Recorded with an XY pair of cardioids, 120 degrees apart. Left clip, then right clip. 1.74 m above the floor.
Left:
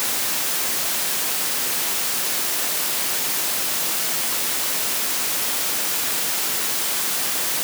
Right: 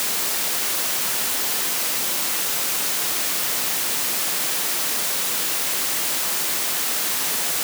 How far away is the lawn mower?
I don't hear a lawn mower.